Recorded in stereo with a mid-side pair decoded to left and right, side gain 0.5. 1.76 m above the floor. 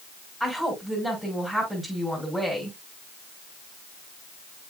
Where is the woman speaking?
Straight ahead, 5.5 m.